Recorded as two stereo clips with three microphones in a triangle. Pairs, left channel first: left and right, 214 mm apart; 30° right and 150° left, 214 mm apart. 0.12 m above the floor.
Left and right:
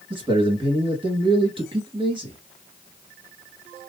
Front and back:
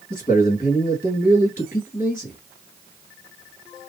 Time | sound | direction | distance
0.1 | a man speaking | 35° right | 1.7 m